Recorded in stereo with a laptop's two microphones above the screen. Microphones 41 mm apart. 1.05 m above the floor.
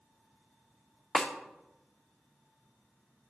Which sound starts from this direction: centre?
A snare drum, at 1.1 s.